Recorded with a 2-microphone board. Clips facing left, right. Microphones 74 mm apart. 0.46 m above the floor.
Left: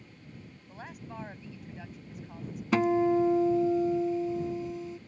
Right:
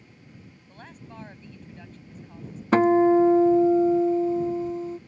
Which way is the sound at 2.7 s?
45° right (ahead or behind).